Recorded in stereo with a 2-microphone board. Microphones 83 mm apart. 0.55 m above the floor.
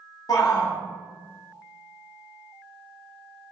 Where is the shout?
50° left (ahead or behind), 1.0 m.